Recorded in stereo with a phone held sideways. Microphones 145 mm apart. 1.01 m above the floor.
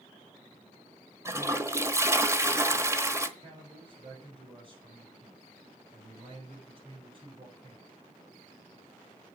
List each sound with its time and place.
1.2 s a toilet flushing: 20° right (ahead or behind), 1.1 m
3.4 s a man speaking: 40° right (ahead or behind), 6 m